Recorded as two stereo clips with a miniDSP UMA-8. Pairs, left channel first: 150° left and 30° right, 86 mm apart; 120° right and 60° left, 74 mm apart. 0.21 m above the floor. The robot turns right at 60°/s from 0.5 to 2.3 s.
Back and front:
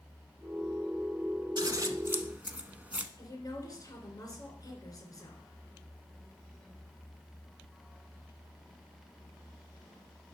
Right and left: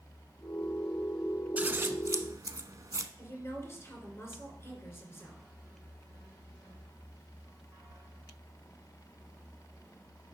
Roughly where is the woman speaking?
Behind.